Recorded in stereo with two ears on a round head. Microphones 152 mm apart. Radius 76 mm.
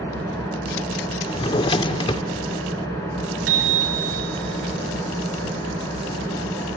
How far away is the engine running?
About 6.5 m.